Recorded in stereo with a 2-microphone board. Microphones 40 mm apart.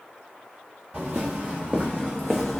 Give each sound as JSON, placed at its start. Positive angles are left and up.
{"t": 0.9, "sound": "footsteps", "side_deg": -35, "distance_m": 1.4}